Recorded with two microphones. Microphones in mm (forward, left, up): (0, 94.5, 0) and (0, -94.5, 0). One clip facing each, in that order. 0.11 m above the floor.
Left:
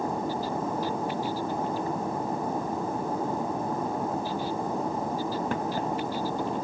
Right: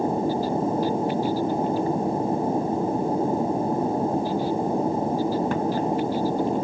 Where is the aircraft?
30° right (ahead or behind).